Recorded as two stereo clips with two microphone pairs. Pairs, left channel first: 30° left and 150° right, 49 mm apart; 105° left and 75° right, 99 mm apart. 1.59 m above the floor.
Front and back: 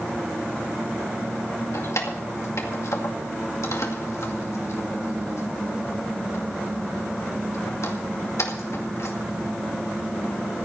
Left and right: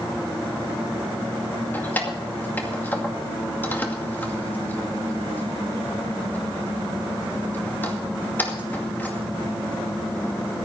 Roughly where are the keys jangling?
Ahead left.